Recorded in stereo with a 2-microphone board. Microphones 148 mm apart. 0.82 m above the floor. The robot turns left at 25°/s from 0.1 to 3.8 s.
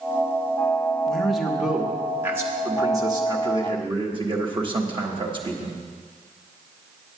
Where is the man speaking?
10° left, 1.2 m; by 5.8 s 60° right, 1.2 m.